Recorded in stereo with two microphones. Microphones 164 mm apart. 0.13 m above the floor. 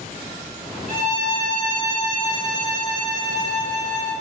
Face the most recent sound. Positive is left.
turn(degrees=-30)  # may be behind; listen again after turning